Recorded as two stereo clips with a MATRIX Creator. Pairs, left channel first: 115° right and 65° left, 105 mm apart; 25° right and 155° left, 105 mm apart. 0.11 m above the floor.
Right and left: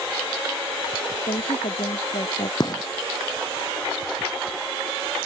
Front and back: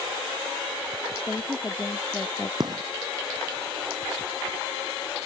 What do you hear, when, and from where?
1.3 s a woman speaking: 95° right; by 2.5 s 90° right
2.6 s a gunshot: 155° right